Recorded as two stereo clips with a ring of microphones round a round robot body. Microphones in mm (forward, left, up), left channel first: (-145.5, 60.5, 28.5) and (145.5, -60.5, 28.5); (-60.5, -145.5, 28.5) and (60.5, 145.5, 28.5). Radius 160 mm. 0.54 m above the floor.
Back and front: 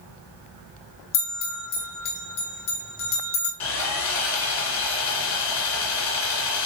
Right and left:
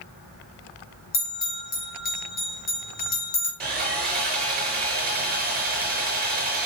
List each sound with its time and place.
1.1 s a bell: 175° right, 3 m
3.6 s sawing: 125° left, 3 m